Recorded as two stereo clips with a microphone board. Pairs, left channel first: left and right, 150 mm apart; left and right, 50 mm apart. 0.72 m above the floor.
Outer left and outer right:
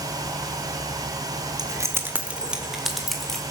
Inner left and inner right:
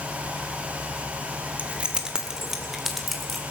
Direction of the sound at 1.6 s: 25° right (ahead or behind).